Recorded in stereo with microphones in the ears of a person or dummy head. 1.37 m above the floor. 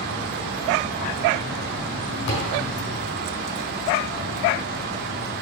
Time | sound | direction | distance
2.3 | a thud | 60° left (ahead or behind) | 4.5 m